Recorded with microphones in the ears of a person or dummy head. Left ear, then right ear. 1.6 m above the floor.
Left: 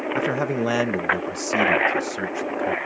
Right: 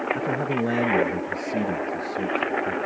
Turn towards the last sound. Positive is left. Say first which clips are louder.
# left 2 dB
turn(degrees=50)  # may be behind; listen again after turning